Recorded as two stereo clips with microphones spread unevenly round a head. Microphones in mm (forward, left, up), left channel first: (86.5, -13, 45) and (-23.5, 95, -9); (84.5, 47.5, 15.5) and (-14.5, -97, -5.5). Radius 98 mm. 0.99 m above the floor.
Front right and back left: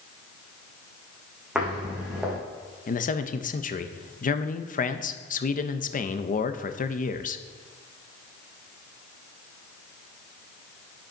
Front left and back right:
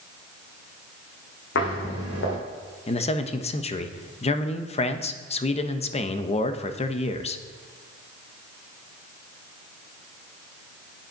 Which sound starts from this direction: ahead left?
Footsteps, at 1.6 s.